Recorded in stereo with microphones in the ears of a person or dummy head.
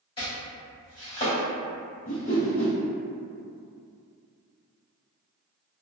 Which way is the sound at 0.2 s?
25° left (ahead or behind).